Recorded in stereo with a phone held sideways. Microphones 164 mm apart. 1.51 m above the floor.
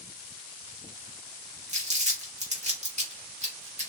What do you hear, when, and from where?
1.7 s crumpling: 45° right (ahead or behind), 2 m